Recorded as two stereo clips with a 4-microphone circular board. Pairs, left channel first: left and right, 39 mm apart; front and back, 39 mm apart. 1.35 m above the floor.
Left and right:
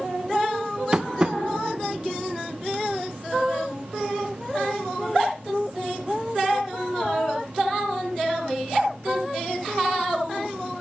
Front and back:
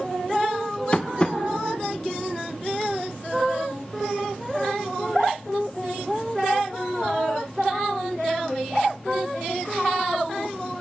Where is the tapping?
40° right, 0.5 m.